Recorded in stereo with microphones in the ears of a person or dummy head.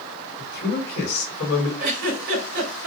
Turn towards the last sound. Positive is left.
turn(degrees=-50)  # may be behind; listen again after turning